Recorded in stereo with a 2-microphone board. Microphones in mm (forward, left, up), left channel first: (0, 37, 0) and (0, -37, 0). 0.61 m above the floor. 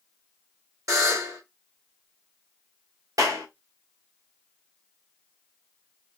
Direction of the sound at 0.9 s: 50° right (ahead or behind).